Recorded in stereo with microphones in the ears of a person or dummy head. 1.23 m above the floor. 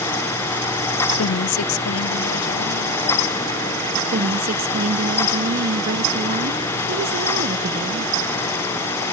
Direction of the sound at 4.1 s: 45° right (ahead or behind).